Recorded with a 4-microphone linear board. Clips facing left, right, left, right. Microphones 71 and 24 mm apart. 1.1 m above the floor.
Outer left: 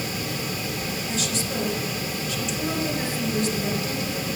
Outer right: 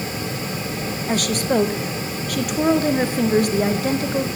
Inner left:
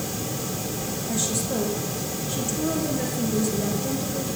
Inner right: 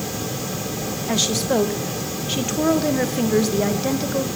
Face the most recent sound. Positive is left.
turn(degrees=-60)  # may be behind; listen again after turning